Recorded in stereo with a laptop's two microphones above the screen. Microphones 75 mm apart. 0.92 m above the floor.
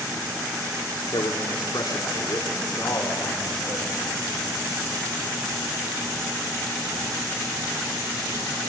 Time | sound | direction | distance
1.1 | a man speaking | 75° left (ahead or behind) | 2.5 m